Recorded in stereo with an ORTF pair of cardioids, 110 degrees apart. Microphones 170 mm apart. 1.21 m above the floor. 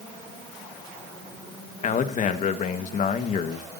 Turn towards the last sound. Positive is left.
turn(degrees=45)